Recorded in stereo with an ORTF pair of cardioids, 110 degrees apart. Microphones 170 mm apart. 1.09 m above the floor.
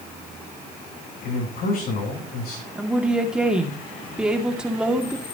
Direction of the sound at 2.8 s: 5° right.